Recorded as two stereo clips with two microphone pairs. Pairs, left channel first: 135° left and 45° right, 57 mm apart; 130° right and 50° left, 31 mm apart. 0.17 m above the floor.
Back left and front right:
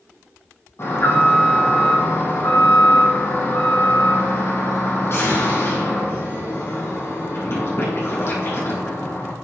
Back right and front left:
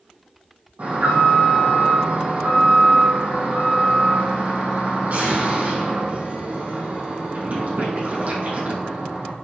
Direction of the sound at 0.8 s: 90° left.